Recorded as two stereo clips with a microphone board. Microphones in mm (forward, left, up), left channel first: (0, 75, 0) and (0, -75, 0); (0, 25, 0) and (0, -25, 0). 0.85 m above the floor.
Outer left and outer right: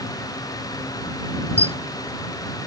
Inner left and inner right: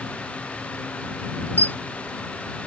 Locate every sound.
1.6 s a camera shutter: 40° left (ahead or behind)